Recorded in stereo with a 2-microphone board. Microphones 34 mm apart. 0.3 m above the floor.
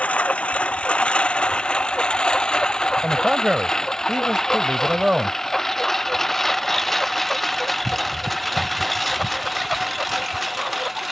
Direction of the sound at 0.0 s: 45° left (ahead or behind).